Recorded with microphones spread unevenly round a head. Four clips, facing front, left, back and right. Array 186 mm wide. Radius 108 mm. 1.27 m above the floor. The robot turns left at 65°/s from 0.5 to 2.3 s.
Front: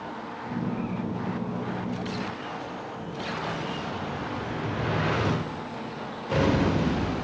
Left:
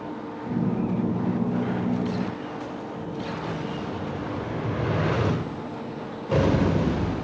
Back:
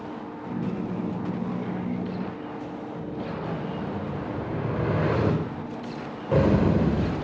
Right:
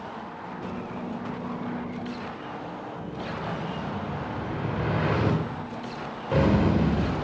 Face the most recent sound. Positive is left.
turn(degrees=150)